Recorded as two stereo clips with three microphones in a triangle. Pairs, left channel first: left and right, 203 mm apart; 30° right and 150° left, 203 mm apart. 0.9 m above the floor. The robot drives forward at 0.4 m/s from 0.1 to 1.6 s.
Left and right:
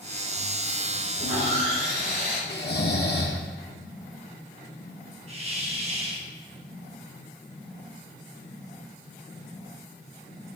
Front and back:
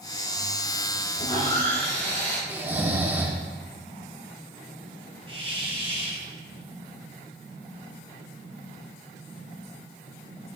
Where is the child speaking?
I don't hear a child speaking.